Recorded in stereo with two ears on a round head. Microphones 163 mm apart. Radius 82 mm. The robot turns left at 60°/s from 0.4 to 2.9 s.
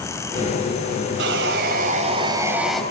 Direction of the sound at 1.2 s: 85° right.